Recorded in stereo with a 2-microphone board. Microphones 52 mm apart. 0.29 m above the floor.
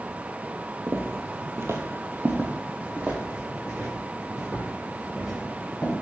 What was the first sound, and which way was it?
Footsteps, 50° right (ahead or behind).